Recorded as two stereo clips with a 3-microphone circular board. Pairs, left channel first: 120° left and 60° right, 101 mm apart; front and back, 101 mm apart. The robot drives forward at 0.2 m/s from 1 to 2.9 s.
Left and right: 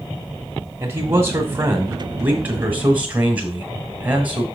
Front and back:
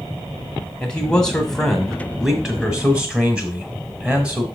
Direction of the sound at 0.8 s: 65° right.